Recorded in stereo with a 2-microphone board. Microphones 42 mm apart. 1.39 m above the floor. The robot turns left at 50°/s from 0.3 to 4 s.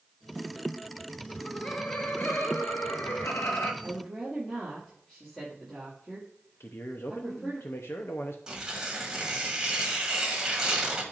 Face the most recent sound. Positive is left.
turn(degrees=-20)  # may be behind; listen again after turning